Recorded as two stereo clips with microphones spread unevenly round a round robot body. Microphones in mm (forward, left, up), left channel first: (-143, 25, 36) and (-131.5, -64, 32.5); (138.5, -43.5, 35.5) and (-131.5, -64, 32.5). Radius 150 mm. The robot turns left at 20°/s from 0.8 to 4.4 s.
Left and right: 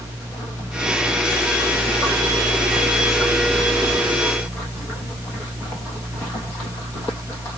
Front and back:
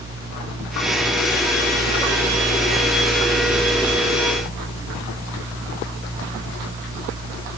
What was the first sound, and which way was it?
Only background noise.